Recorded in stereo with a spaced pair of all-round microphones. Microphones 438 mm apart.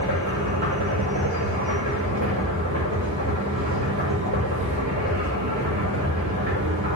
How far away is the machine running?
About 6 m.